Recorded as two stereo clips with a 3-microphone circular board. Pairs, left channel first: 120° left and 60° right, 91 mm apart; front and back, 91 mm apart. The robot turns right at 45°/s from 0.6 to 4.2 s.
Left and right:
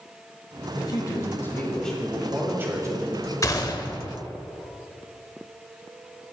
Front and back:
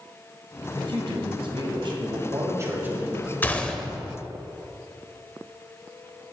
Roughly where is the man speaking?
Behind left.